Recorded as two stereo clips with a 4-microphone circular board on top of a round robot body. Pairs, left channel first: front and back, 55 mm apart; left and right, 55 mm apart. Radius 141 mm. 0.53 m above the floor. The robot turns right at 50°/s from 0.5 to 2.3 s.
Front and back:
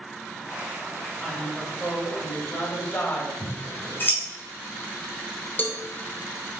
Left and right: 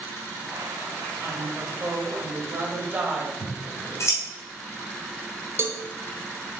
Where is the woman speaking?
90° right, 1.7 m; by 3.3 s 35° right, 1.7 m.